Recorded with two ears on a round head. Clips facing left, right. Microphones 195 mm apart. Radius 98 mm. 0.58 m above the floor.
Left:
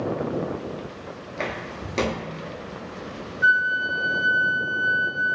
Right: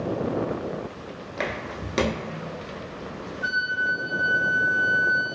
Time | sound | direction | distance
1.4 | footsteps | 20° right (ahead or behind) | 0.5 m
3.4 | a flute | 10° left (ahead or behind) | 0.5 m